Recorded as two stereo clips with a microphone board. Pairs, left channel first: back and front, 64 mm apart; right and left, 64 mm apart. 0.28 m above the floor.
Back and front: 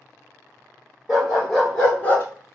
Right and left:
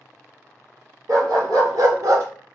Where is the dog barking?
85° left, 1.8 m; by 2.2 s 125° left, 0.8 m.